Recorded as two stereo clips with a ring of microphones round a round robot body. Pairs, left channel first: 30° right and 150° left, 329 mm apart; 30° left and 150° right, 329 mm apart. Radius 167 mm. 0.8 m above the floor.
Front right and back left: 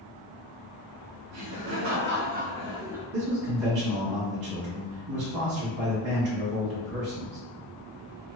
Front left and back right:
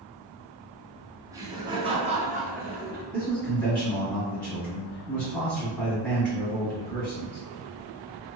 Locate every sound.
1.3 s laughter: 135° left, 1.1 m; by 3.0 s 130° right, 0.8 m
3.1 s a man speaking: 110° left, 1.4 m